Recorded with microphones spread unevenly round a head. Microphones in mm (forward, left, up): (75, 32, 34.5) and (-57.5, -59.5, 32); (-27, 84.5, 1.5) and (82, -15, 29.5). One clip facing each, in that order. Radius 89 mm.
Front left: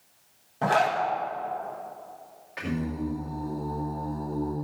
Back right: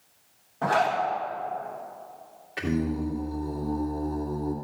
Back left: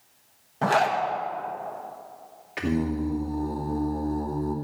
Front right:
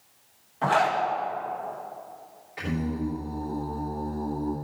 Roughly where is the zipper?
Left.